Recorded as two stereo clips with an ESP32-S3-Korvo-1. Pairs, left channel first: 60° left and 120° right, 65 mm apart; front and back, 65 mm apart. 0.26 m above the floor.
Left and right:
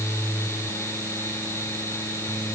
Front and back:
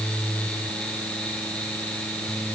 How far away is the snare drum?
No snare drum in this recording.